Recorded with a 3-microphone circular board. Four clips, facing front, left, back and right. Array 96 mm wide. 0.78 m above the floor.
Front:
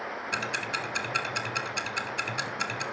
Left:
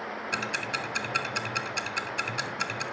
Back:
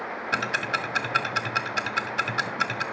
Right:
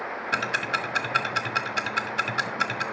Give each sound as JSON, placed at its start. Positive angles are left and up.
{"t": 0.3, "sound": "ticking", "azimuth_deg": -135, "distance_m": 1.4}